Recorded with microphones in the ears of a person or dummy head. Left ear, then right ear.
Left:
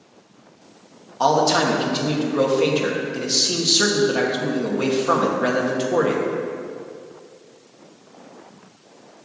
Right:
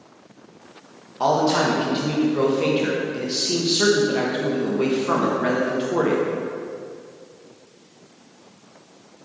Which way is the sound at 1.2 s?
15° left (ahead or behind).